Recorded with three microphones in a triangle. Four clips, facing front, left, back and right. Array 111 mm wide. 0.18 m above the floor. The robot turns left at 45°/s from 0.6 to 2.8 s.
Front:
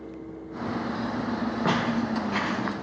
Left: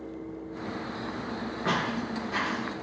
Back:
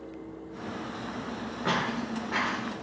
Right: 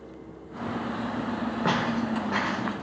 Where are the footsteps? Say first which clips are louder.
Right 3 dB, front 3 dB; 55° right, 2.0 m; by 2.6 s 100° right, 2.0 m.